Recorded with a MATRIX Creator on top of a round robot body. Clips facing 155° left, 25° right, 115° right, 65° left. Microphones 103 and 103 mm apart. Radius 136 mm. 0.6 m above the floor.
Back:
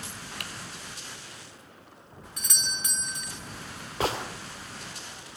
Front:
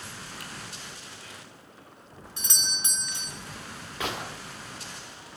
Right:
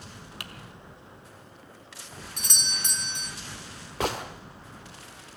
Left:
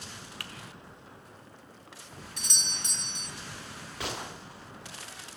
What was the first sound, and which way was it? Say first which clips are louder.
Typing on a keyboard: back 2 dB, right 2 dB; straight behind.